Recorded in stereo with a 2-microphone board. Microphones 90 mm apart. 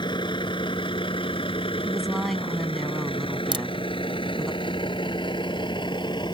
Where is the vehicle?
60° left (ahead or behind).